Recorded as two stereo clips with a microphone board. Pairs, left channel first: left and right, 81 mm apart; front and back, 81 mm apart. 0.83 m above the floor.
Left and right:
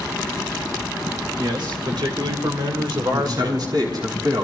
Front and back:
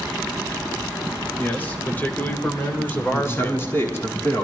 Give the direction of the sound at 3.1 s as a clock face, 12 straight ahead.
2 o'clock.